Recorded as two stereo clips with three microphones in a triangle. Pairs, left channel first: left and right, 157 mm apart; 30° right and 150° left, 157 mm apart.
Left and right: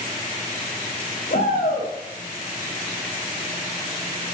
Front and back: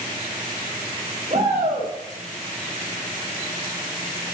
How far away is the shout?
About 5 m.